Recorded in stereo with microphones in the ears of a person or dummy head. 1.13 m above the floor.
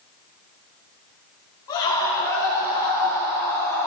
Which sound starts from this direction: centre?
A scream, at 1.7 s.